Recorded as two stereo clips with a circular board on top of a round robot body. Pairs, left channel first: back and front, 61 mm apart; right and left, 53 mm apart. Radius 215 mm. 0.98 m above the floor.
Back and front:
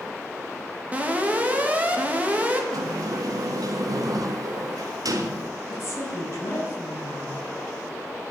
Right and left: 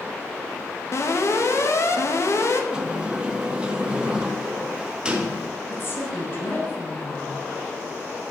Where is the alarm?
65° right, 2.5 m.